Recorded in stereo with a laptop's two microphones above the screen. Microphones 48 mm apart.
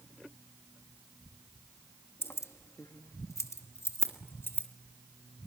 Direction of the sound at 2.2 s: 50° left (ahead or behind).